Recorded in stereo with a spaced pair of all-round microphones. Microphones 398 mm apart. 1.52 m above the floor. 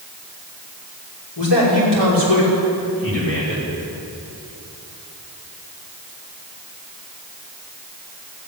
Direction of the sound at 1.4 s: 80° left.